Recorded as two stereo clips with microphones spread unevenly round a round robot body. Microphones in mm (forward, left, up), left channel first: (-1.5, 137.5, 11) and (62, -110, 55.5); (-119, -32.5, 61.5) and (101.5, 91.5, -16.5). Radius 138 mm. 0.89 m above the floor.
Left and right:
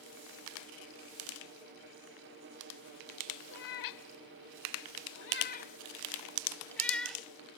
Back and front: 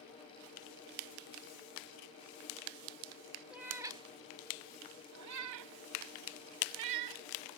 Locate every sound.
3.5 s a cat meowing: 125° left; by 7.2 s 10° left